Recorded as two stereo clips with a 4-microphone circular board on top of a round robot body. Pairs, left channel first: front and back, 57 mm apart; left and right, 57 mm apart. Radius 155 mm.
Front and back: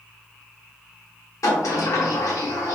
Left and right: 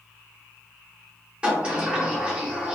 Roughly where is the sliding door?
Ahead.